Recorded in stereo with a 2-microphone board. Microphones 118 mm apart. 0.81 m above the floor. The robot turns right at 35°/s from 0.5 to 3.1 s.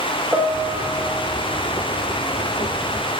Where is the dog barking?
No dog barking in this recording.